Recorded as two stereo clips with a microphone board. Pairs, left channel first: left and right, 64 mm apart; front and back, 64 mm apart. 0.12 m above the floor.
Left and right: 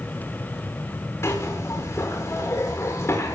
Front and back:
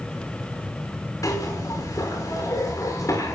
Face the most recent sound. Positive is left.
turn(degrees=40)